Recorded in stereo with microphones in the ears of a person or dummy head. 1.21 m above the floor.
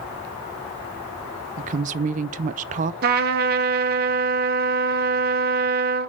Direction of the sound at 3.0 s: 50° right (ahead or behind).